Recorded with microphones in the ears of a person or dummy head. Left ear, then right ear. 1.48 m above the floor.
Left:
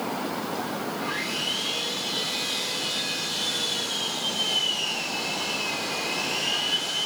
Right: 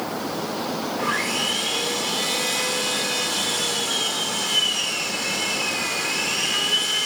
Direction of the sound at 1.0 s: 15° right (ahead or behind).